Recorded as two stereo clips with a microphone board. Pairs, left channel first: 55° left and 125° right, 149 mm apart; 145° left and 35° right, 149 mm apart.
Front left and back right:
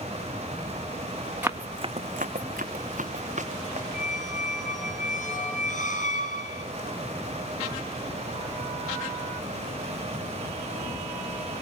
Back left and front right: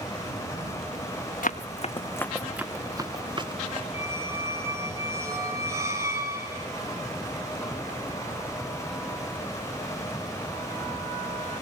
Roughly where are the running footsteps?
Behind.